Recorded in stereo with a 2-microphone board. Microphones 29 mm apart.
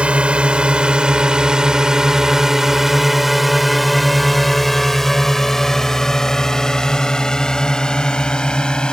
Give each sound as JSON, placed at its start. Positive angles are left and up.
{"t": 0.0, "sound": "a drone", "side_deg": -40}